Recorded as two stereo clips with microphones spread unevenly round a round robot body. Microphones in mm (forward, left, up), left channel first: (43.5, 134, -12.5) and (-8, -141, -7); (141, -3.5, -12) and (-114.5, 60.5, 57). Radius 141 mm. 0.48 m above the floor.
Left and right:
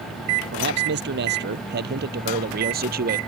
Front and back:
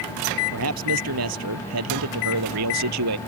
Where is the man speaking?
155° right; by 3.2 s 160° right.